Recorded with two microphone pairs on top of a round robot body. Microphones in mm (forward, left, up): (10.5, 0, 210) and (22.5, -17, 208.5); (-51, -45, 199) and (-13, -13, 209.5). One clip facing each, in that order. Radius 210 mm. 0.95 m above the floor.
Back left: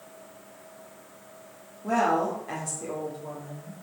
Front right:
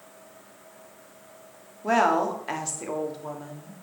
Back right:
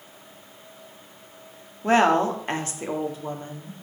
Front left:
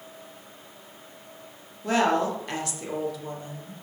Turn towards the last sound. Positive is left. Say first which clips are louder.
# front right 3 dB, back right 4 dB
turn(degrees=-85)